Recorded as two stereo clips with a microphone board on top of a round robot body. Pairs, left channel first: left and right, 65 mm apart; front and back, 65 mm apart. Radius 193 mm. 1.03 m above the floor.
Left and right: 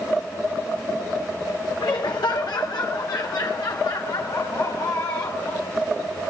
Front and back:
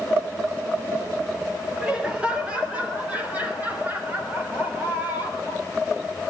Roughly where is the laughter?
Left.